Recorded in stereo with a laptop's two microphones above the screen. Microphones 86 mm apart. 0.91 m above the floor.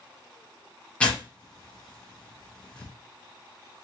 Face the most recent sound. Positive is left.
turn(degrees=15)  # may be behind; listen again after turning